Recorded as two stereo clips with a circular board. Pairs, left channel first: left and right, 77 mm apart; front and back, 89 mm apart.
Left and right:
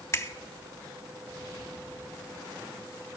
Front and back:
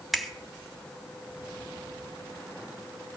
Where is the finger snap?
95° left, 1.2 m.